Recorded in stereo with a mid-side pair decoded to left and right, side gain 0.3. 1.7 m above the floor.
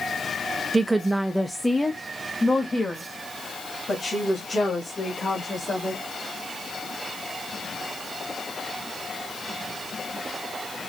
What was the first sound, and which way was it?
A woman speaking, 40° right.